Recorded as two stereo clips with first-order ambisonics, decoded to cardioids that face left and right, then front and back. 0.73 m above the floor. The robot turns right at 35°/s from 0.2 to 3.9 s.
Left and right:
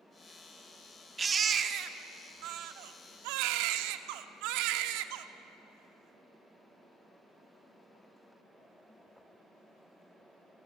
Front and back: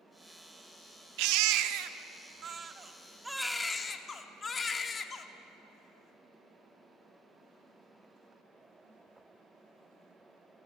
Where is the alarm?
I don't hear an alarm.